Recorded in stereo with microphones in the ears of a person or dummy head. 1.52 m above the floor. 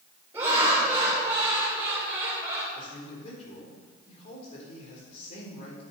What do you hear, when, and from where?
0.3 s laughter: 15° right (ahead or behind), 5 m
2.8 s a man speaking: 40° left (ahead or behind), 4 m